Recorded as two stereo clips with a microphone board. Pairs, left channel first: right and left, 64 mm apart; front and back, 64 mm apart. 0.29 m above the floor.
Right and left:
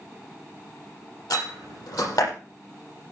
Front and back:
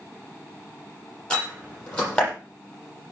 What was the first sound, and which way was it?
A door slam, 75° right.